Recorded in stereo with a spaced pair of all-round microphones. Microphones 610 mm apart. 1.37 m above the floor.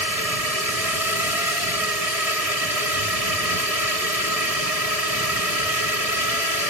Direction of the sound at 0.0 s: 70° right (ahead or behind).